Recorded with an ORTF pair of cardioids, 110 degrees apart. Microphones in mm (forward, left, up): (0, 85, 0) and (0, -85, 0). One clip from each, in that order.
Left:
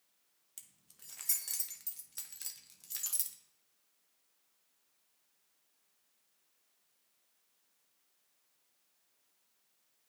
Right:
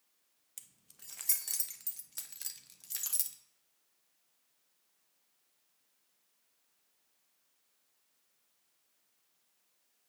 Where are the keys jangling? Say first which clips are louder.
Right 2 dB; 10° right, 0.7 m.